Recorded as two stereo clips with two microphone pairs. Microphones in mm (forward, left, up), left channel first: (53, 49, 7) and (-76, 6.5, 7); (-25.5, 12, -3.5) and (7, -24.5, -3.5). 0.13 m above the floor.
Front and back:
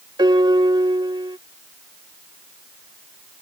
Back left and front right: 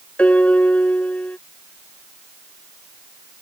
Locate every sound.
0.2 s a piano: 170° left